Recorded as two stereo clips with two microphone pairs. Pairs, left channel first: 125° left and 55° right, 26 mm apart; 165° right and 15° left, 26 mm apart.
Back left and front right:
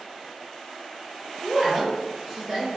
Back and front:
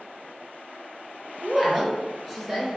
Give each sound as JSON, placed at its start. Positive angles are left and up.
{"t": 1.4, "sound": "a woman speaking", "azimuth_deg": -75, "distance_m": 1.1}